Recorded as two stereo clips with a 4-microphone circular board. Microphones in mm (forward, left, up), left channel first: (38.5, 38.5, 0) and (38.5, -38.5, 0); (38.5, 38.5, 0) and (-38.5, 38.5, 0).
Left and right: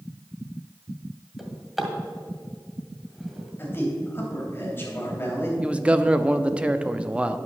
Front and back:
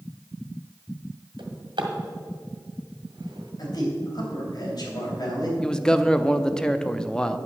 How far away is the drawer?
About 1.6 m.